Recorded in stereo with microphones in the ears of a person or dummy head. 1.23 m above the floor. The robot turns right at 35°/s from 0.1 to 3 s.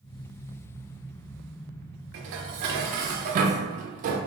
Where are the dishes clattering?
75° right, 0.5 m; by 4.2 s 45° right, 0.5 m.